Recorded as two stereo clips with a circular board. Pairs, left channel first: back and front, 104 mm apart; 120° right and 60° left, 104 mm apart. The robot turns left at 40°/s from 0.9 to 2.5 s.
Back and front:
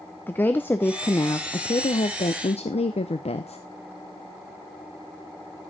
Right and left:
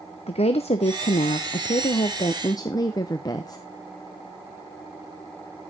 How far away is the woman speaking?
About 0.6 m.